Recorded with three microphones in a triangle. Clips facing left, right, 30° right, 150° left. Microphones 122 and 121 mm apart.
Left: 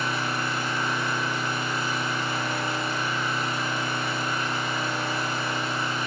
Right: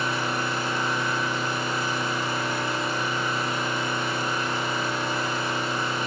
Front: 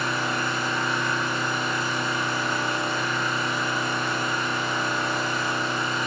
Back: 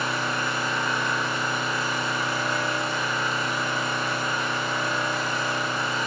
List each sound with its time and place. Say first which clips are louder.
0.0 s an engine running: right 1 dB, front 1 dB; 125° right, 1.1 m